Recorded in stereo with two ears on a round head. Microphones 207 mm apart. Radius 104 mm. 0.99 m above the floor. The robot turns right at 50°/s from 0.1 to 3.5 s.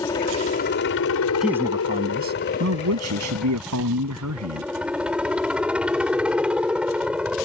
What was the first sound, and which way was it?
A helicopter, 15° left.